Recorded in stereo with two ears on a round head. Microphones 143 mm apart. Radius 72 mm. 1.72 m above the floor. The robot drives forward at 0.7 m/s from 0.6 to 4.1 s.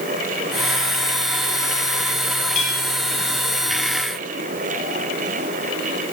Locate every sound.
2.5 s a clink: 45° left (ahead or behind), 7 m; by 2.8 s 50° left (ahead or behind), 7 m